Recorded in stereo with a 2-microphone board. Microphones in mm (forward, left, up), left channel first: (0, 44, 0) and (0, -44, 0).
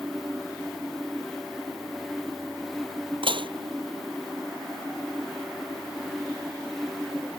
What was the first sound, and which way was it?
Dishes clattering, 75° right (ahead or behind).